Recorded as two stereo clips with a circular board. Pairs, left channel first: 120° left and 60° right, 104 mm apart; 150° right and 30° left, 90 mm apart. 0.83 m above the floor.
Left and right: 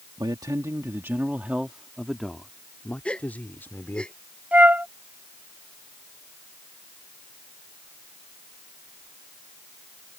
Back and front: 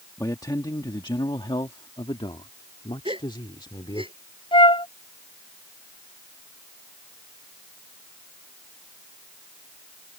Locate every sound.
0.2 s a man speaking: 100° right; by 4.0 s 175° right
3.0 s a gasp: 40° left
4.5 s a flute: 135° right